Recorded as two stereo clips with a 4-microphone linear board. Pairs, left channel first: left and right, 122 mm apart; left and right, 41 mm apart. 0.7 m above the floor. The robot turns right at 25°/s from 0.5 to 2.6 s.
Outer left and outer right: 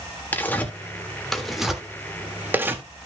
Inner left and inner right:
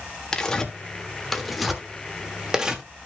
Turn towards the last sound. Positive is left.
turn(degrees=-20)  # may be behind; listen again after turning